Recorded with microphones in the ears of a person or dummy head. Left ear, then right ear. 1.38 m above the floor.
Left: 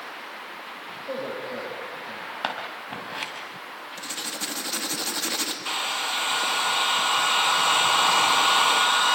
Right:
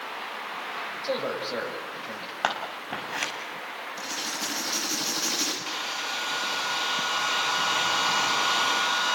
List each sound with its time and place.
1.0 s a man speaking: 45° right (ahead or behind), 9 m
2.4 s scissors: 20° right (ahead or behind), 4.5 m
4.0 s writing: 20° left (ahead or behind), 3 m
5.7 s a hair dryer: 25° left (ahead or behind), 1.1 m